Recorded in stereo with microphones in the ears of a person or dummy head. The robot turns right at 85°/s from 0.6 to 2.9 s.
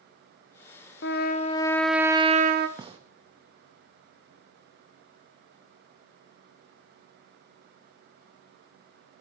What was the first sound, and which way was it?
A trumpet, 105° left.